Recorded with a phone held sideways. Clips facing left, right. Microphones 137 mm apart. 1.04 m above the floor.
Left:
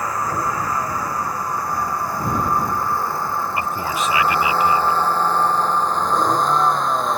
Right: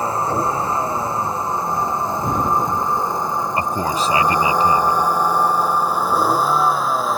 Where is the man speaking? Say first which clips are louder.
Right 3 dB; 35° right (ahead or behind).